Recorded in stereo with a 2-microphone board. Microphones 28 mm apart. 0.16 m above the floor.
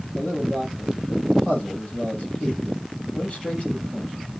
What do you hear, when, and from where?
0.1 s a man speaking: 45° left (ahead or behind), 5 m